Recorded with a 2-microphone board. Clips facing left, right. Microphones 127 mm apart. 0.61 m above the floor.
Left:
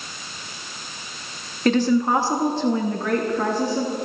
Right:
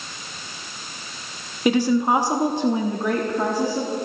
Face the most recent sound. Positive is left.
turn(degrees=-10)  # may be behind; listen again after turning